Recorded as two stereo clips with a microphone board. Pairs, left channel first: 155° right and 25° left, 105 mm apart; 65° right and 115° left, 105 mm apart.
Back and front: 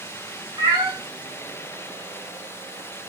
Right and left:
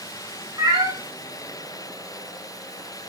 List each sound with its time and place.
0.6 s a cat meowing: 65° left, 2.5 m